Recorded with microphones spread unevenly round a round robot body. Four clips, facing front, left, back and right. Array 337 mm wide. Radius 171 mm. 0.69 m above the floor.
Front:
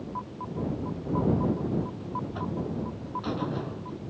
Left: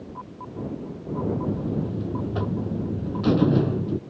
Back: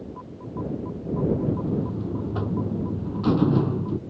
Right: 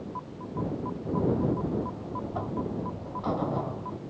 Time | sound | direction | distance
1.5 | a buzzer | 130° left | ?